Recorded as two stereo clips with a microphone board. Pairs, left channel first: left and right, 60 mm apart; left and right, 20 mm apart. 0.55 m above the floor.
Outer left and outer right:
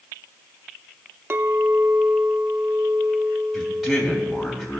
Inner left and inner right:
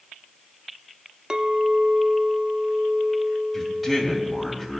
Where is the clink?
40° right (ahead or behind), 0.5 m.